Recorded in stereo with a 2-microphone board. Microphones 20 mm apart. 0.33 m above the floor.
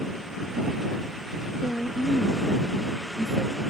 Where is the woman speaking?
35° left (ahead or behind); by 3.6 s 40° left (ahead or behind).